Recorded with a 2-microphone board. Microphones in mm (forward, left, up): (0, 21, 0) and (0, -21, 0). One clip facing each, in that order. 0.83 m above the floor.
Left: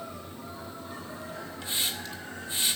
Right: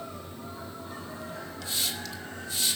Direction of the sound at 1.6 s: 25° left (ahead or behind).